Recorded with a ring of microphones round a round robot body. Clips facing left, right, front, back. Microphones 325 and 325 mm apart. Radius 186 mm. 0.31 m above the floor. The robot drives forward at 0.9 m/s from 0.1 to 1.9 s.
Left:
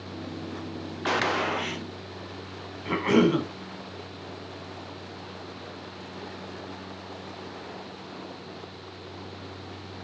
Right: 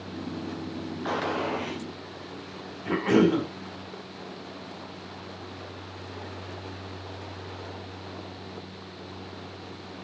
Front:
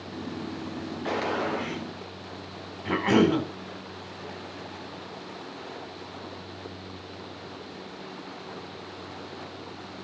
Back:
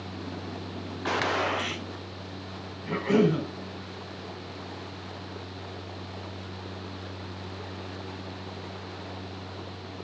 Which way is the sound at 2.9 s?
5° left.